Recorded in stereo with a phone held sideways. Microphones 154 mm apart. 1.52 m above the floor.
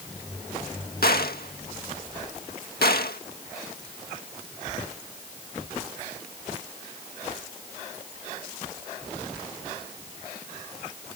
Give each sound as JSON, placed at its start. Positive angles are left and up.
{"t": 1.0, "sound": "a gunshot", "side_deg": 85}